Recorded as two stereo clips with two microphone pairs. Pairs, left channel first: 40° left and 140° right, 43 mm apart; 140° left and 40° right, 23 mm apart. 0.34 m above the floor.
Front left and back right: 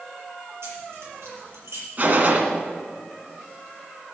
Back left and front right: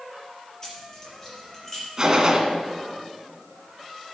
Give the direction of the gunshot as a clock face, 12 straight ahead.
3 o'clock.